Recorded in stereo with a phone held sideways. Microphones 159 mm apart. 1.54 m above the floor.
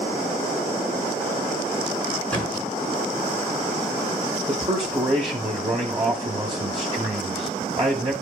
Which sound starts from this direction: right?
A man speaking, at 4.5 s.